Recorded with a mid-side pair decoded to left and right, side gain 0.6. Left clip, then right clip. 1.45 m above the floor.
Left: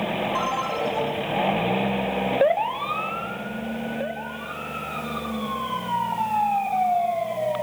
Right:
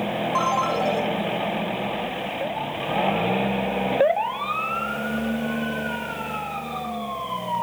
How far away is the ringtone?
About 5.5 m.